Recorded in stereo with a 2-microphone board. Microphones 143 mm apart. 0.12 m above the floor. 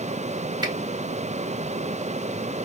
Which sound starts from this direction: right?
A finger snap, at 0.6 s.